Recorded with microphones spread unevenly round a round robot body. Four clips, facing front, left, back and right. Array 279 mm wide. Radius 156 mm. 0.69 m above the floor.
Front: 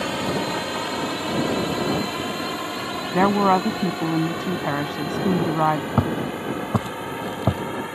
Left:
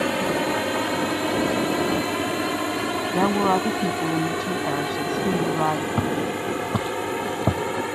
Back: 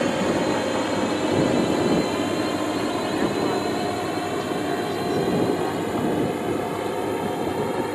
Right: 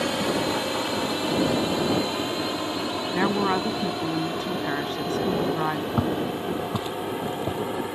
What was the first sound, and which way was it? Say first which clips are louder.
A drone: left 2 dB, back 3 dB; 155° left.